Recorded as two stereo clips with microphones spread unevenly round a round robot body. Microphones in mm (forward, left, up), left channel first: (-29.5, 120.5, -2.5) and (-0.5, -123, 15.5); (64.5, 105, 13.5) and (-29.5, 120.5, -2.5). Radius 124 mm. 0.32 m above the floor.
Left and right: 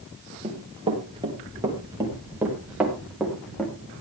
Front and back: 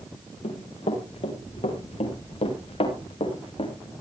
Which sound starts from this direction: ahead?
Running footsteps, at 0.4 s.